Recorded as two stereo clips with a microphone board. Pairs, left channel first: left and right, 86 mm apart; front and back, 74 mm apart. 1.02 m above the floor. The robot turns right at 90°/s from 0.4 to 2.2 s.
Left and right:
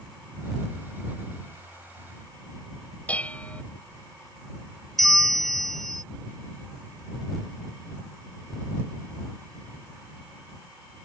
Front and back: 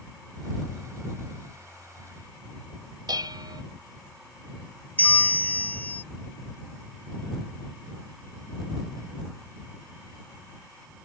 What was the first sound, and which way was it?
Dishes clattering, 165° left.